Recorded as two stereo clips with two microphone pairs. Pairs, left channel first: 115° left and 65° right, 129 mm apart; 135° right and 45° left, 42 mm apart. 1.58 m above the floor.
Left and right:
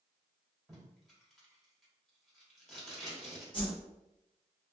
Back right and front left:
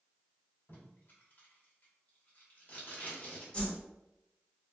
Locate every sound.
0.7 s tape being pulled: 155° right, 1.4 m
3.5 s a whoosh: 165° left, 1.2 m